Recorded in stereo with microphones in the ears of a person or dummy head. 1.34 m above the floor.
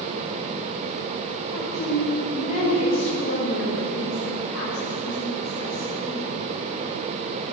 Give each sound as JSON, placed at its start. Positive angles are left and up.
{"t": 1.5, "sound": "a woman speaking", "side_deg": 40, "distance_m": 7.0}